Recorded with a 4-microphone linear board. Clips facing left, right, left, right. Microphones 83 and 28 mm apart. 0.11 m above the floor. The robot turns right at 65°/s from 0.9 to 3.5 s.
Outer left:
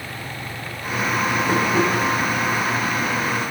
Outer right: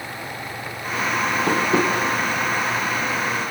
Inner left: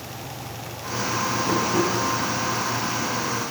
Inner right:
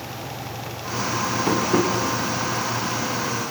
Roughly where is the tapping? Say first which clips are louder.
Even, inner right 3 dB; right.